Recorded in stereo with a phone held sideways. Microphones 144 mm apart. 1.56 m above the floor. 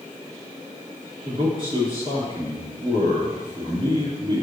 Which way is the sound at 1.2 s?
40° right (ahead or behind).